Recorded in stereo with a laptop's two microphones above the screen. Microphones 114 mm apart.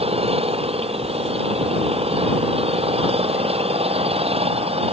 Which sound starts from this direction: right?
An engine running, at 0.0 s.